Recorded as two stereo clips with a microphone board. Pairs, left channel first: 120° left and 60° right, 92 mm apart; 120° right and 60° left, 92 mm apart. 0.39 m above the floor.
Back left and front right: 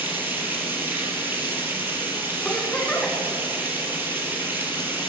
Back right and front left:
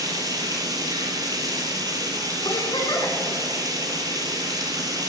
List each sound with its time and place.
0.0 s running water: 10° left, 2.5 m
2.5 s a giggle: 160° right, 1.6 m